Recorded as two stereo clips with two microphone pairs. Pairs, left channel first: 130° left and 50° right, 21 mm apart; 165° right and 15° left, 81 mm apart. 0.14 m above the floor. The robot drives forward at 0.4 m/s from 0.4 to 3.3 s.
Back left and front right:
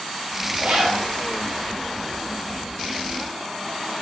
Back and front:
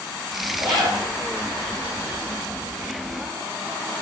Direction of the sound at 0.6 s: 25° right.